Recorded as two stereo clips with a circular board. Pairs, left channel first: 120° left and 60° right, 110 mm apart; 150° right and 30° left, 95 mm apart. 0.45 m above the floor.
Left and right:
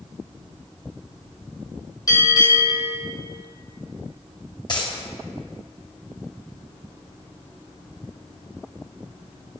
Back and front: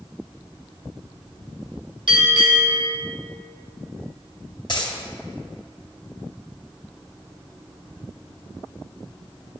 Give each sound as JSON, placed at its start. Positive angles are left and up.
{"t": 2.1, "sound": "a bell", "azimuth_deg": 65, "distance_m": 2.5}
{"t": 4.7, "sound": "a dropped coin", "azimuth_deg": 170, "distance_m": 1.8}